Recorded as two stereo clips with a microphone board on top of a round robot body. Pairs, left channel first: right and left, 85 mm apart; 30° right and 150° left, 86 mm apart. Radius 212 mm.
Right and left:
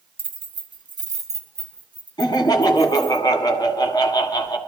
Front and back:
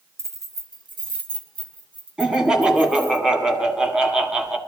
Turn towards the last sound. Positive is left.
turn(degrees=-130)